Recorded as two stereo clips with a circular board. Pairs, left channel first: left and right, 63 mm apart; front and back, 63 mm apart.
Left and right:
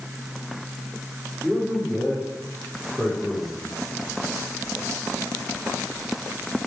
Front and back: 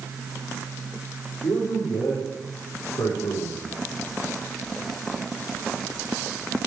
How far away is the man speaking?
About 7 m.